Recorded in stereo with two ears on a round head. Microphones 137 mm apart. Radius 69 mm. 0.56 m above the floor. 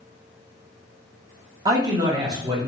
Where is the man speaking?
25° right (ahead or behind), 0.7 m.